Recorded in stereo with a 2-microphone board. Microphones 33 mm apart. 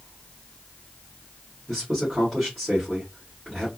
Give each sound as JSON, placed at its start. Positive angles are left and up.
{"t": 1.7, "sound": "a man speaking", "side_deg": -5, "distance_m": 1.8}